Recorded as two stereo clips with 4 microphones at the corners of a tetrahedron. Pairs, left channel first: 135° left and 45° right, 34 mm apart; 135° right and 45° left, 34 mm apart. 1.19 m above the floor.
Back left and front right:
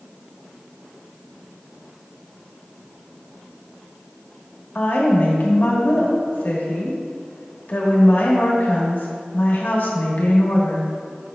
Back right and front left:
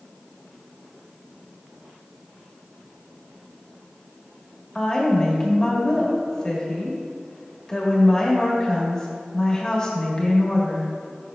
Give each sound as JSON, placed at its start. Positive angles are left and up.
{"t": 4.8, "sound": "a woman speaking", "azimuth_deg": 160, "distance_m": 1.5}